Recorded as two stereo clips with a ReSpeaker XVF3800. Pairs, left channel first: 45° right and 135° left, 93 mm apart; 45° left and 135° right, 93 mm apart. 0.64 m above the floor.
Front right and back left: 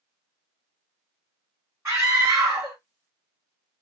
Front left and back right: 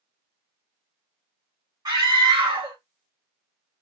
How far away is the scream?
About 1.6 m.